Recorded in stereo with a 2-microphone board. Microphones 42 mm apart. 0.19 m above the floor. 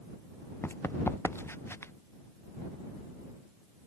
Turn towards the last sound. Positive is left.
turn(degrees=85)